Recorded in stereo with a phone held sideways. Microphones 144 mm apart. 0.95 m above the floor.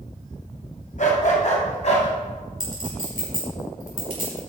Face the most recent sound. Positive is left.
turn(degrees=80)